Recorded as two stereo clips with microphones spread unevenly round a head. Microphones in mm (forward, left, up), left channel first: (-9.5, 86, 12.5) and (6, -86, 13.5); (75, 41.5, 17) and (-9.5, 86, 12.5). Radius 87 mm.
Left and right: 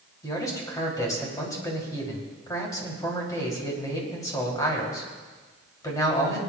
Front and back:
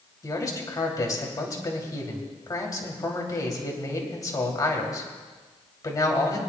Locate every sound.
0.2 s a man speaking: 25° left, 2.5 m